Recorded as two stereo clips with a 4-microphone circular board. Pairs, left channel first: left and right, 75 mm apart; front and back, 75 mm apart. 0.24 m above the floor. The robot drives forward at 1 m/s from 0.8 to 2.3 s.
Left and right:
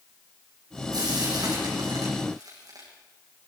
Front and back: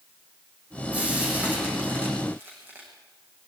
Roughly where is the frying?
Right.